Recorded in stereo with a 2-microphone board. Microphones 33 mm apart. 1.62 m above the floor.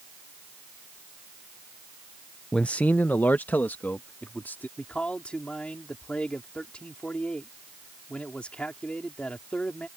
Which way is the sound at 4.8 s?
40° left (ahead or behind).